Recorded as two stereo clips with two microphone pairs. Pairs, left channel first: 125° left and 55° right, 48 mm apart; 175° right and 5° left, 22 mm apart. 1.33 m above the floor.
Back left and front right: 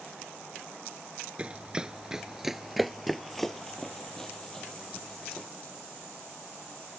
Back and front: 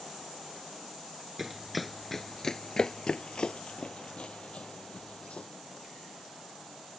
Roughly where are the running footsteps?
Ahead right.